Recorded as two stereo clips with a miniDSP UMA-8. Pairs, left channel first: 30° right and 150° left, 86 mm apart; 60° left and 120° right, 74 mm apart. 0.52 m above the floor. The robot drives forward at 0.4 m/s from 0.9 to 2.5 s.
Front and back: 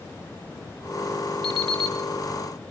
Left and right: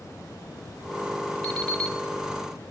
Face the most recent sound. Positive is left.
turn(degrees=140)